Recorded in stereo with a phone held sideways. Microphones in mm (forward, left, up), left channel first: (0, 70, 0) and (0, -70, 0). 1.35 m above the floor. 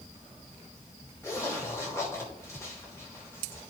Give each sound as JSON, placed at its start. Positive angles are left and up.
{"t": 1.2, "sound": "a zipper", "side_deg": 20, "distance_m": 3.0}